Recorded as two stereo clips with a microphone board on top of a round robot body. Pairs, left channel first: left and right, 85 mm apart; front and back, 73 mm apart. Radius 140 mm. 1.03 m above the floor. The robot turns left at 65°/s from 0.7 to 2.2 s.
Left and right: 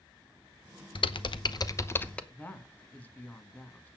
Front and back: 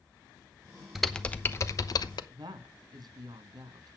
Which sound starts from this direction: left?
Typing on a keyboard, at 0.9 s.